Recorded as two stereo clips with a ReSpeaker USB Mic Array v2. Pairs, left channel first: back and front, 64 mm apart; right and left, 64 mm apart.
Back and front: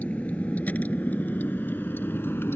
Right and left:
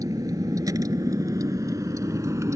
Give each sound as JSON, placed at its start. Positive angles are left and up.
{"t": 0.0, "sound": "a vehicle", "azimuth_deg": 110}